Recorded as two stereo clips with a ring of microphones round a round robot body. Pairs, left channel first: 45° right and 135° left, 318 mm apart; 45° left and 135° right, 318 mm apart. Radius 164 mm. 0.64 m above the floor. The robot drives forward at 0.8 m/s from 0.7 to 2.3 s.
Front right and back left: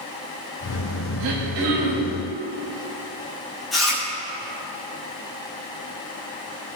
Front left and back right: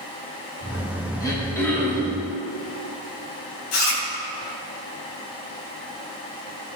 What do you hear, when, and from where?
1.2 s throat clearing: 125° left, 4 m; by 2.2 s 135° left, 4 m
3.7 s chewing: 45° left, 5 m